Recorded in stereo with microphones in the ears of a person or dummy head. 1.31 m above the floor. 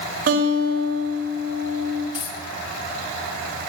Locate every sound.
0.3 s a guitar: 55° right (ahead or behind), 4.5 m
2.1 s a dropped coin: 35° left (ahead or behind), 3.5 m